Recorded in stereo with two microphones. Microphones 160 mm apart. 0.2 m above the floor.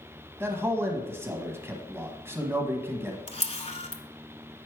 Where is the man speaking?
15° right (ahead or behind), 1.3 m.